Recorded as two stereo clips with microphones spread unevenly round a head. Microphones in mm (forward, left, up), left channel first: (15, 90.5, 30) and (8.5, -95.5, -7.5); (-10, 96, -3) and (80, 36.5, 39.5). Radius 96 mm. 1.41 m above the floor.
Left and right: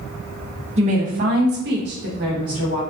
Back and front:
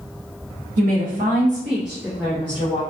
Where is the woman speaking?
40° right, 0.9 m; by 2.8 s 140° right, 1.1 m.